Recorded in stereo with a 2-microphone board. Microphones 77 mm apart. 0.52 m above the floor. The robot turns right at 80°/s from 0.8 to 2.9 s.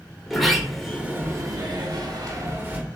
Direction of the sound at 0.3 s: Straight behind.